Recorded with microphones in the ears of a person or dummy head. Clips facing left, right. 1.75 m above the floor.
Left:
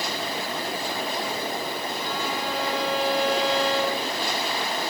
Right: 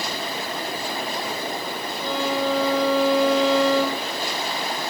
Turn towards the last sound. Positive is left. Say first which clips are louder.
# right 10 dB
turn(degrees=-55)  # may be behind; listen again after turning